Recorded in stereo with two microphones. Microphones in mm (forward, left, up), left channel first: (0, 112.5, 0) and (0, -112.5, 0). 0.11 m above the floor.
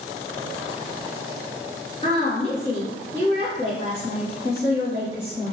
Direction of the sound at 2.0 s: 30° left (ahead or behind).